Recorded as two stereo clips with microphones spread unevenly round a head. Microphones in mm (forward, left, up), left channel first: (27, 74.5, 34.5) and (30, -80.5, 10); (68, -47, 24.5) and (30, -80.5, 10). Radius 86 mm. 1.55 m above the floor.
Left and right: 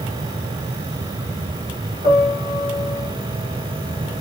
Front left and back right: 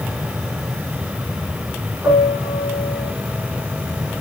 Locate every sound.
2.0 s a piano: 135° right, 1.6 m